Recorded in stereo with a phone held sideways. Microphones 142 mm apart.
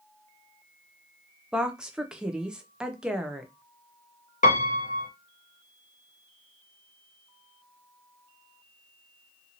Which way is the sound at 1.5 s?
5° right (ahead or behind).